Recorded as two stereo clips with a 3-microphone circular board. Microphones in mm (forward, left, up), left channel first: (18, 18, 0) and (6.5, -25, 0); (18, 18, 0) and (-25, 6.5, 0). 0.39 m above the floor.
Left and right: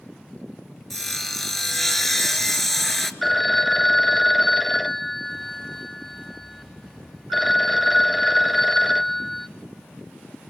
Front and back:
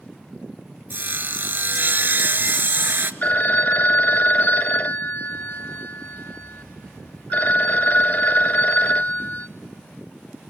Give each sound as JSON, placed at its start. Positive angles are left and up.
{"t": 0.9, "sound": "sawing", "azimuth_deg": 160, "distance_m": 0.9}
{"t": 3.2, "sound": "a phone ringing", "azimuth_deg": -10, "distance_m": 0.5}